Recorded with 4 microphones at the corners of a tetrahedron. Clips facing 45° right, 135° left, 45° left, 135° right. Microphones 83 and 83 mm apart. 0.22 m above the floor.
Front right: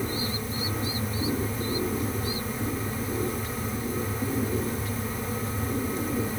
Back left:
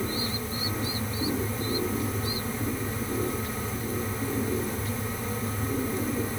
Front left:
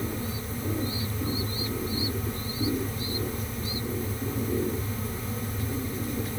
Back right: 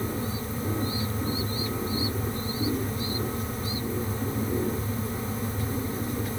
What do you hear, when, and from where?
Only background noise.